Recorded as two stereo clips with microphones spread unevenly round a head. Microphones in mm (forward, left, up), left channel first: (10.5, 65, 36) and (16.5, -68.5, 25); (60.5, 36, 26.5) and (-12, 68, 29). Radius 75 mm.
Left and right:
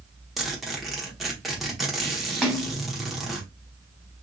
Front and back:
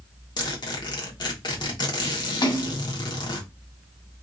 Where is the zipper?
Straight ahead, 1.1 m.